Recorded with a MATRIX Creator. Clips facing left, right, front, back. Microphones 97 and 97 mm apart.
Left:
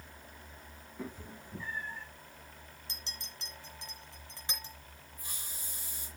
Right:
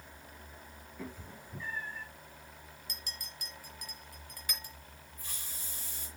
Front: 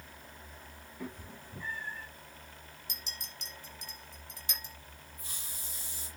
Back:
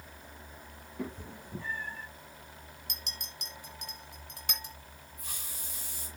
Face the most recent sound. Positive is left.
turn(degrees=165)